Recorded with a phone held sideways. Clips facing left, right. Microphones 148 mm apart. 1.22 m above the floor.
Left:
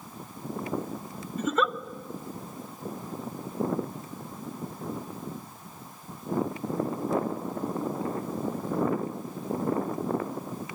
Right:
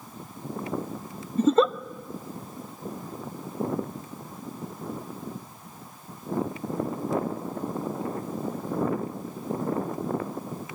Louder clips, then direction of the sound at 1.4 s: Right 7 dB; 35° right (ahead or behind).